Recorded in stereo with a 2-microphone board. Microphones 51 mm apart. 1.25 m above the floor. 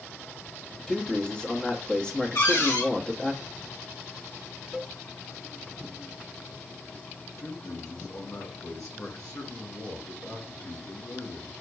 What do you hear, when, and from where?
0.9 s a man speaking: 20° left (ahead or behind), 1.1 m
2.4 s a cupboard door: 70° left (ahead or behind), 2 m
4.7 s a cowbell: 5° right (ahead or behind), 1.2 m
7.4 s a man speaking: 80° left, 2.5 m